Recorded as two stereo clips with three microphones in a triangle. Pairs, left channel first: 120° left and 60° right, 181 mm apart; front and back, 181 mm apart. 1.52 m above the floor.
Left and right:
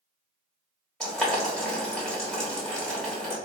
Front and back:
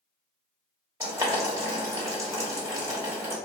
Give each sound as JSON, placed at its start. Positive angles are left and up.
{"t": 1.0, "sound": "boiling", "azimuth_deg": -165, "distance_m": 1.2}